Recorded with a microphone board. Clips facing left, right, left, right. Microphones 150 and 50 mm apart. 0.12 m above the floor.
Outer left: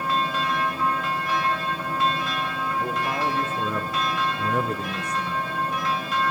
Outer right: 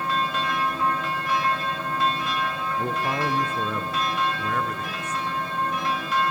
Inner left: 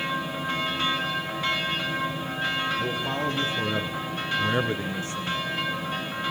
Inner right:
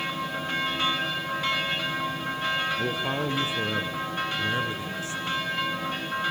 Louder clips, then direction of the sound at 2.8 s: Outer right 1 dB, even; 30° right (ahead or behind).